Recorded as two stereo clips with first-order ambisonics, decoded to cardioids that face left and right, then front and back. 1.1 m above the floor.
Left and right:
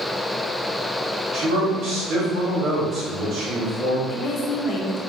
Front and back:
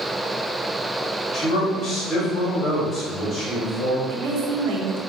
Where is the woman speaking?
145° left, 0.7 m.